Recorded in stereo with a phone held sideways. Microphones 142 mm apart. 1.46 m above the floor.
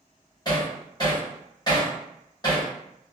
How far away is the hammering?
About 1.3 m.